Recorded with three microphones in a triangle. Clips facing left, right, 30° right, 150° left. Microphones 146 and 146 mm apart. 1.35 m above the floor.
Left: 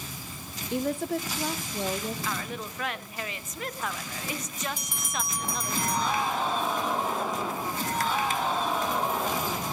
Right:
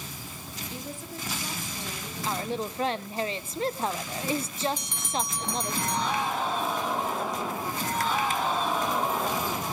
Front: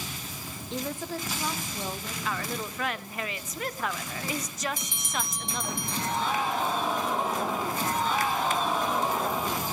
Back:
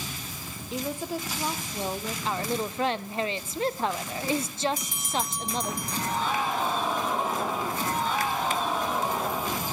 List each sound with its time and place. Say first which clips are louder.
0.7 s a woman speaking: left 13 dB, back 2 dB; 65° left, 0.9 m; by 2.1 s 90° left, 1.4 m
2.2 s a woman speaking: right 4 dB, back 4 dB; 150° right, 0.6 m
4.8 s a bell: right 3 dB, back 4 dB; 165° left, 0.8 m